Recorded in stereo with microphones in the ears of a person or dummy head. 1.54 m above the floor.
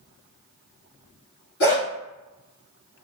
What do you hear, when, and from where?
1.6 s a dog barking: 45° left (ahead or behind), 1.8 m